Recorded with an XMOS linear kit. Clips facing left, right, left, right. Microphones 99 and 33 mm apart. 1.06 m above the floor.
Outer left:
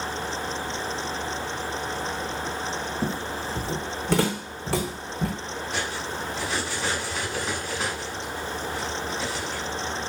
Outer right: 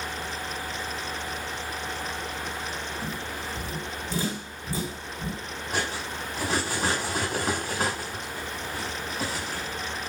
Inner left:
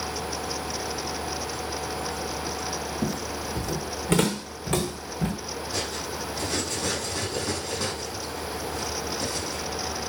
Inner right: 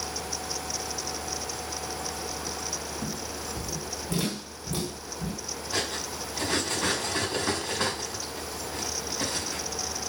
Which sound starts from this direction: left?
Footsteps, at 3.0 s.